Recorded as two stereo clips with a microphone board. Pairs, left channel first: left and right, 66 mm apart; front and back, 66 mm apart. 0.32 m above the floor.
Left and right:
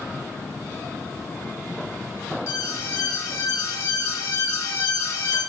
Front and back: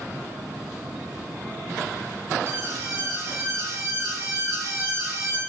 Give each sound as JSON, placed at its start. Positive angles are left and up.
{"t": 2.5, "sound": "an alarm", "azimuth_deg": 135, "distance_m": 4.5}